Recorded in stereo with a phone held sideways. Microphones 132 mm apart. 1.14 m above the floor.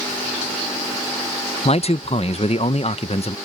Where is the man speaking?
50° left (ahead or behind).